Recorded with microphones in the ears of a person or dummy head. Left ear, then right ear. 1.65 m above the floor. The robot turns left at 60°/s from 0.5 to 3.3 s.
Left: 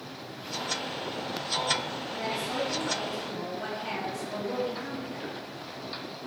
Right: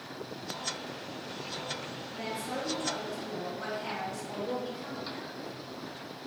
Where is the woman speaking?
5° right, 1.0 m; by 5.4 s 80° right, 1.0 m.